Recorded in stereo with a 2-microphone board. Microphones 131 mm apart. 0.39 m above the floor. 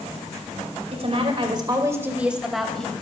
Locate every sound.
0.9 s a woman speaking: 50° right (ahead or behind), 2 m; by 2.9 s 5° left (ahead or behind), 2.5 m